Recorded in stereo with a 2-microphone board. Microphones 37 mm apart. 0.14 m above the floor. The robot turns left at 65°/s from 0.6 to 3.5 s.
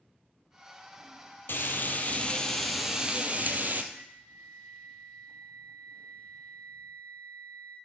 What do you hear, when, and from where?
1.5 s frying: 80° left, 1.1 m; by 3.8 s 50° right, 1.1 m
3.9 s a flute: 65° right (ahead or behind), 6 m